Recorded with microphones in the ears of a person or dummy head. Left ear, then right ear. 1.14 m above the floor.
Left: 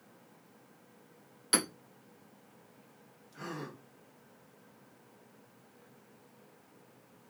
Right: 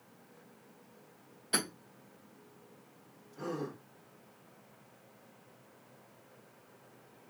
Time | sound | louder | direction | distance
1.5 | hammering | left 2 dB | 50° left (ahead or behind) | 1.8 m
3.3 | a gasp | right 4 dB | 60° left (ahead or behind) | 2 m